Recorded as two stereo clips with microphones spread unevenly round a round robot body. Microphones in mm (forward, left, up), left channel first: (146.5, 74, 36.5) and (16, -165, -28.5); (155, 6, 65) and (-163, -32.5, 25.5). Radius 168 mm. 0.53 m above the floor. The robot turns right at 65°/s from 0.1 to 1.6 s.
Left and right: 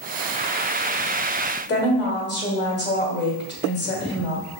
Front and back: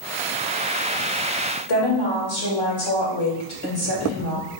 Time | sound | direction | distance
1.7 | a woman speaking | 5° left | 2 m